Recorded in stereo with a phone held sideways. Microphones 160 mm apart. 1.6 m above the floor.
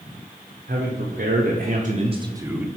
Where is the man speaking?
85° right, 1.3 m; by 2.7 s 5° right (ahead or behind), 0.7 m.